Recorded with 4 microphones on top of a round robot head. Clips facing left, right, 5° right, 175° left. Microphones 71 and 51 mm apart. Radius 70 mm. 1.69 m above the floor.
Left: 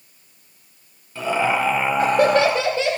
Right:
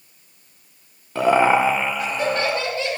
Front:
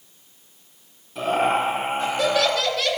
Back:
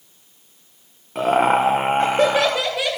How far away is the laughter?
About 0.8 m.